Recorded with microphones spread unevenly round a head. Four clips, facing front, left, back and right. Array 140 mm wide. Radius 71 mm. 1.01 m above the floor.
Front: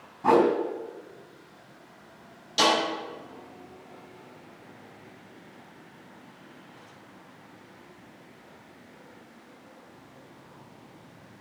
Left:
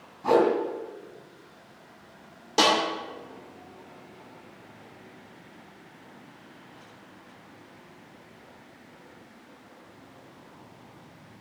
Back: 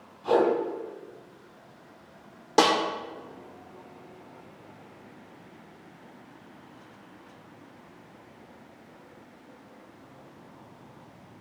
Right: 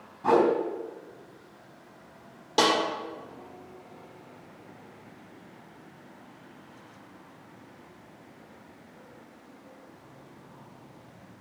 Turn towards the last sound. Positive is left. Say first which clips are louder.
# left 1 dB, back 2 dB
turn(degrees=-175)